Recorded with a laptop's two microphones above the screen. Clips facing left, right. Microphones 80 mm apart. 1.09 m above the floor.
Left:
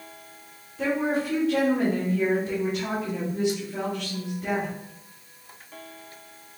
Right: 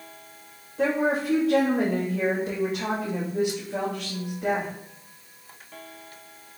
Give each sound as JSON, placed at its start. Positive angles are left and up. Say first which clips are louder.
{"t": 0.8, "sound": "a woman speaking", "louder": "right 2 dB", "side_deg": -85, "distance_m": 1.7}